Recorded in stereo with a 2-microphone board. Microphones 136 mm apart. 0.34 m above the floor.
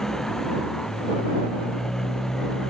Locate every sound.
0.0 s a motorcycle: 5° left (ahead or behind)